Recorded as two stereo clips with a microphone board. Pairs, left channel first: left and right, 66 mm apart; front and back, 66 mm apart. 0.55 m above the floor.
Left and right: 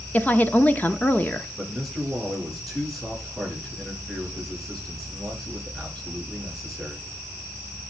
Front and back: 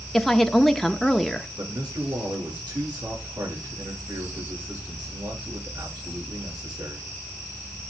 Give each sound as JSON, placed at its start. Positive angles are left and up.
{"t": 0.1, "sound": "a woman speaking", "azimuth_deg": 85, "distance_m": 0.8}
{"t": 1.6, "sound": "a man speaking", "azimuth_deg": -175, "distance_m": 8.0}